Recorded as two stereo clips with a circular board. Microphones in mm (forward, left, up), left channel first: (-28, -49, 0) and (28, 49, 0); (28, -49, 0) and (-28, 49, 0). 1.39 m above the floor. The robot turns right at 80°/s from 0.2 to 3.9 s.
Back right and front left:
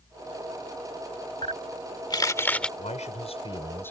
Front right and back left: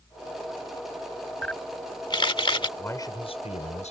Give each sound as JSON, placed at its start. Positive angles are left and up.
{"t": 1.4, "sound": "a camera shutter", "azimuth_deg": -140}
{"t": 2.8, "sound": "a man speaking", "azimuth_deg": -135}